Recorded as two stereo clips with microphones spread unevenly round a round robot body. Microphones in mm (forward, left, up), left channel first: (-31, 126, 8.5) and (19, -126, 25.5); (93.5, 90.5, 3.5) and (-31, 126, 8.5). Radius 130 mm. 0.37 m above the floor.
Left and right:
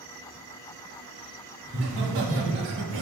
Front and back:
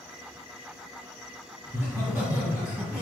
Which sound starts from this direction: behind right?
Laughter, at 1.6 s.